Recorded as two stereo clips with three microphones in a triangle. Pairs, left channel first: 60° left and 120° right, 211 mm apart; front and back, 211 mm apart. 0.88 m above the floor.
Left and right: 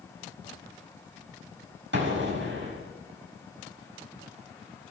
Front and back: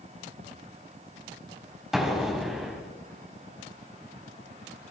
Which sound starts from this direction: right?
An explosion, at 1.9 s.